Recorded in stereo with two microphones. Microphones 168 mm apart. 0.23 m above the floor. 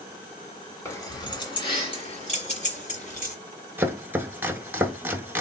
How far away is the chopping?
About 0.7 m.